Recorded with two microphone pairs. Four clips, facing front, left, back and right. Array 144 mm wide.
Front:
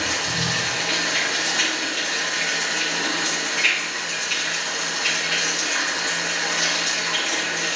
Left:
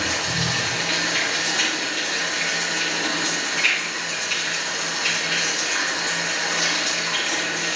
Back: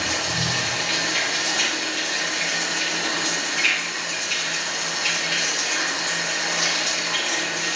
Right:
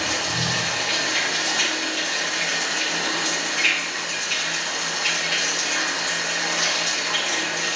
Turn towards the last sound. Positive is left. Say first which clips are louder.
# even, even
turn(degrees=50)